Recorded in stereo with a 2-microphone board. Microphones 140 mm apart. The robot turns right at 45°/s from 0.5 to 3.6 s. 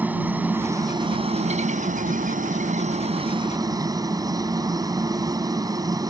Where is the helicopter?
165° right; by 6.1 s 30° right.